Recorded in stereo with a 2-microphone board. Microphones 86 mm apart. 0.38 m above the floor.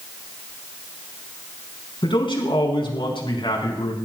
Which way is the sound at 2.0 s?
70° left (ahead or behind).